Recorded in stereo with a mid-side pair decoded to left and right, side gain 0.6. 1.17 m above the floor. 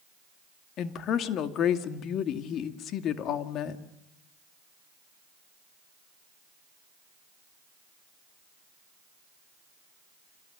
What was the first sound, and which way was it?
A woman speaking, 55° left.